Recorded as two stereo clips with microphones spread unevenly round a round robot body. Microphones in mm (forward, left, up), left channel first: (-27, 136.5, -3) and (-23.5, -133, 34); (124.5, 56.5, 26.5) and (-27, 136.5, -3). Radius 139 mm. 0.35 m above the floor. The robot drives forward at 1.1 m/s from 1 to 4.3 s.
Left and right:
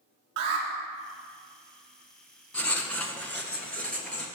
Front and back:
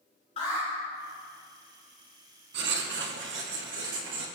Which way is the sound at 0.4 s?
95° right.